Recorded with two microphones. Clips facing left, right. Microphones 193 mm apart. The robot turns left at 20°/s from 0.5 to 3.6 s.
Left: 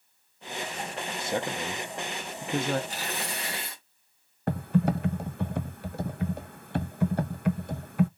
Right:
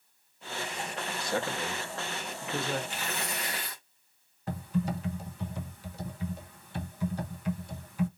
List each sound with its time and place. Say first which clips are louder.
1.2 s a man speaking: left 2 dB; 25° left (ahead or behind), 0.7 m; by 2.8 s 45° left (ahead or behind), 0.7 m
2.9 s tearing paper: left 1 dB; 40° left (ahead or behind), 1.4 m; by 3.8 s 25° left (ahead or behind), 1.4 m
4.5 s typing on a keyboard: left 6 dB; 60° left (ahead or behind), 0.6 m